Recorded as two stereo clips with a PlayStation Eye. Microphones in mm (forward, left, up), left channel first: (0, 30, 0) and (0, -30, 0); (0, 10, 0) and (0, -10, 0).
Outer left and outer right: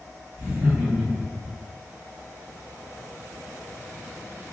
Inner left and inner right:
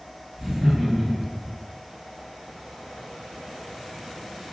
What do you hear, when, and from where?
0.4 s laughter: 20° right (ahead or behind), 1.4 m